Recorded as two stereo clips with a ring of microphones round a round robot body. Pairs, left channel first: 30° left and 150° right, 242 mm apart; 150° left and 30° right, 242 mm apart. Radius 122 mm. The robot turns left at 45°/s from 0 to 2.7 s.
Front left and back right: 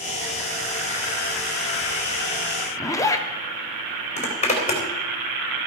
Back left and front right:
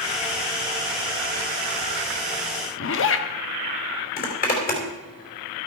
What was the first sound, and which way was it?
A zipper, 110° left.